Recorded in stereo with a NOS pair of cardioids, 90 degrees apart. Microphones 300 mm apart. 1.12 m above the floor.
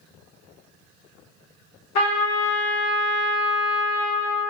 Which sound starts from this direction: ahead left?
A trumpet, at 1.9 s.